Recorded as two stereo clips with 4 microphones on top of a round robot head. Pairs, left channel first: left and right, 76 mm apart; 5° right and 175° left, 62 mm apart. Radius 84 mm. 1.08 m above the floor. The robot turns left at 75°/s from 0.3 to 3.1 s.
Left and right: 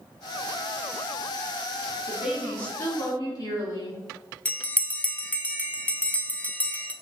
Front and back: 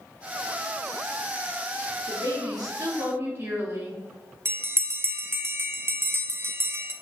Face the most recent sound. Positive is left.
turn(degrees=150)